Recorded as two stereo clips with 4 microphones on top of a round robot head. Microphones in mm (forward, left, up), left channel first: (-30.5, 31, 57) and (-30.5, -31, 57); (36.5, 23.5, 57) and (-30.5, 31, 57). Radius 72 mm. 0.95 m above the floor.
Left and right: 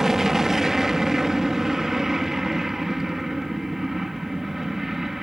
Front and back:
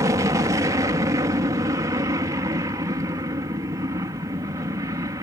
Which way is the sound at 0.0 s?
170° right.